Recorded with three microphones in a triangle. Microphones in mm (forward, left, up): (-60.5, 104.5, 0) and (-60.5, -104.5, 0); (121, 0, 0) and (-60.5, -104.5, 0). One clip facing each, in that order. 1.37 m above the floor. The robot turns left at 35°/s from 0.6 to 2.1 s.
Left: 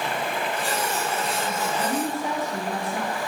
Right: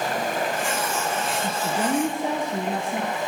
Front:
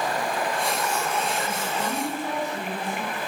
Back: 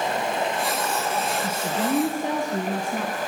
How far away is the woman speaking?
About 1.2 m.